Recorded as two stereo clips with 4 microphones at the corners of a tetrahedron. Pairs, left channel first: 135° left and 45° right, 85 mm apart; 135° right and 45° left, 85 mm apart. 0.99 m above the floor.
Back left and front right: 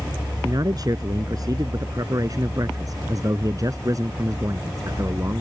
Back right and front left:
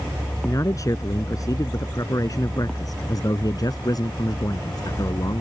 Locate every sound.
0.4 s a man speaking: 85° right; by 5.4 s 95° right